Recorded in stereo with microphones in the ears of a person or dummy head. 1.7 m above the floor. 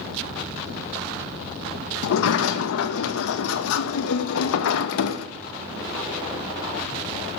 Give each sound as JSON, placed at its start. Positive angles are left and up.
{"t": 2.0, "sound": "a sliding door", "side_deg": 70, "distance_m": 0.6}